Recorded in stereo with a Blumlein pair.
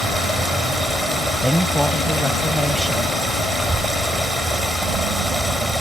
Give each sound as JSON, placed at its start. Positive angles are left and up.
{"t": 0.0, "sound": "running water", "azimuth_deg": 0}
{"t": 1.4, "sound": "a woman speaking", "azimuth_deg": 0}
{"t": 3.5, "sound": "a child speaking", "azimuth_deg": -5}